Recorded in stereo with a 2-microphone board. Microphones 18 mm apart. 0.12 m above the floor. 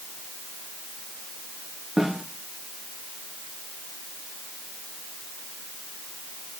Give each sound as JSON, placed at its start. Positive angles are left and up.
{"t": 2.0, "sound": "a snare drum", "side_deg": -20, "distance_m": 7.0}